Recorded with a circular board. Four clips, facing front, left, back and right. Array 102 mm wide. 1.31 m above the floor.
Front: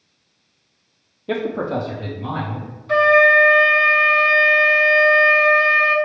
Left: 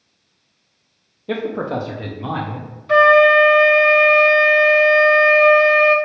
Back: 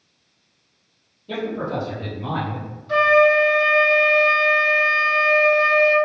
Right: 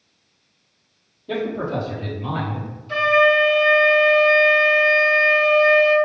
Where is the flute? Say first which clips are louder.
Left 6 dB, front 1 dB; 65° left, 0.5 m.